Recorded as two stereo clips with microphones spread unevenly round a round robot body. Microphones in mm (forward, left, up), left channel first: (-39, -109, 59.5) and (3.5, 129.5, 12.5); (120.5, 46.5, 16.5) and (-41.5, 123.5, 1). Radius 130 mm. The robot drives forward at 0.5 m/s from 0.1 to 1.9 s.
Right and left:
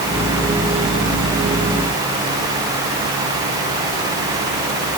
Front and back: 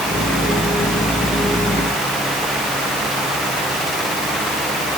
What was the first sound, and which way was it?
Only background noise.